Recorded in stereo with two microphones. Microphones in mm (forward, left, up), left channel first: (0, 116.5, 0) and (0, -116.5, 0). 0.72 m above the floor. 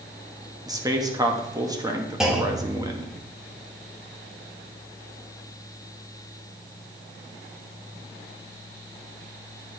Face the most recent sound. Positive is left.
turn(degrees=0)  # may be behind; listen again after turning